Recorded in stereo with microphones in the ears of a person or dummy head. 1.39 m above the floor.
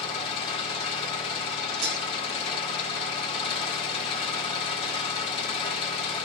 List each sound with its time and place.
0.0 s an engine running: 35° left (ahead or behind), 2.5 m
1.8 s breaking glass: 55° right (ahead or behind), 4.5 m